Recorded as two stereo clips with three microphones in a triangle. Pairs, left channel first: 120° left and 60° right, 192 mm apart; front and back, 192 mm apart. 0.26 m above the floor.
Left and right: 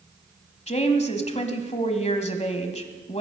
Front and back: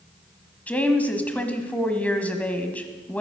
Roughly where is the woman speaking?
Left.